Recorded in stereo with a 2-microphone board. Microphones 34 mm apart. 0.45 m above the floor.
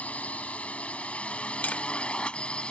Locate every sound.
0.0 s a drone: 50° left (ahead or behind); by 2.7 s 35° left (ahead or behind)
1.6 s tapping: 55° left (ahead or behind)